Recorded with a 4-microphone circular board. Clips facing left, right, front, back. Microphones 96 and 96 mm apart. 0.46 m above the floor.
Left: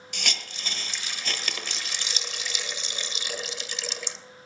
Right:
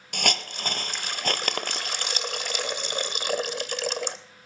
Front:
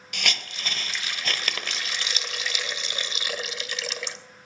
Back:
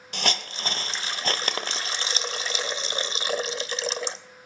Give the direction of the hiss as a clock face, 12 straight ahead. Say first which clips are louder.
Right 8 dB, back 3 dB; 4 o'clock.